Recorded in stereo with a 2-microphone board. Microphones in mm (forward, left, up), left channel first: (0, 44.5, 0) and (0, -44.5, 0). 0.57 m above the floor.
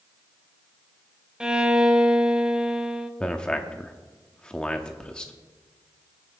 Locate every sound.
1.4 s a violin: 10° right (ahead or behind), 0.7 m
3.2 s a man speaking: 10° left (ahead or behind), 0.7 m